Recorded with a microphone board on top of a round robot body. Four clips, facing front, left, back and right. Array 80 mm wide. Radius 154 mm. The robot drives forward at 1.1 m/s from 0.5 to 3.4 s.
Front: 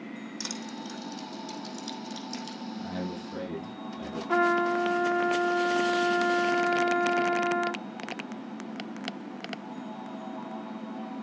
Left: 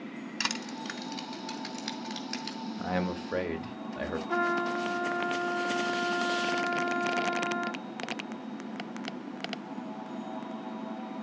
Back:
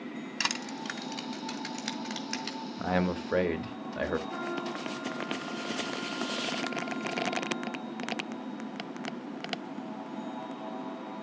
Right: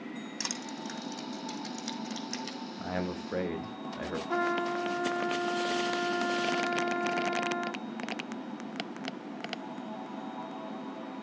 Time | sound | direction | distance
0.4 | crushing | 145° left | 1.4 m
2.8 | a man speaking | 160° left | 1.3 m
4.3 | a trumpet | 5° left | 0.8 m